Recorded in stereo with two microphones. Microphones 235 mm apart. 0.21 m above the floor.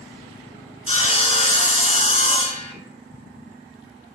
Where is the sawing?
25° left (ahead or behind), 1.3 m.